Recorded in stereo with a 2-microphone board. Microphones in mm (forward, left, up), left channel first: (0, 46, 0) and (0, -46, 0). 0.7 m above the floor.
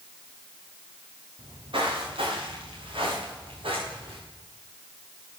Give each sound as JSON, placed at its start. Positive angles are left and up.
{"t": 1.4, "sound": "footsteps", "side_deg": -75, "distance_m": 5.5}